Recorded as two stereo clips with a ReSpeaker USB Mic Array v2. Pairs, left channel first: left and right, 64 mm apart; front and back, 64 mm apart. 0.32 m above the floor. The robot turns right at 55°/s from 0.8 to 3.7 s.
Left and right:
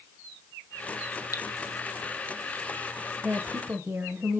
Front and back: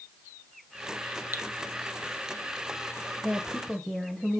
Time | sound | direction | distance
1.3 | dripping | 120° left | 0.7 m
3.2 | a woman speaking | 105° right | 1.0 m